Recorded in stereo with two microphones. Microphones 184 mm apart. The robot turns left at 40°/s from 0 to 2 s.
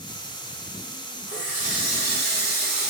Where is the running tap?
25° right (ahead or behind), 1.2 m; by 2.9 s 55° right (ahead or behind), 1.2 m.